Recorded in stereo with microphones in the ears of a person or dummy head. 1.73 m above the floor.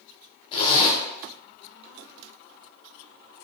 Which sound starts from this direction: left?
A zipper, at 0.5 s.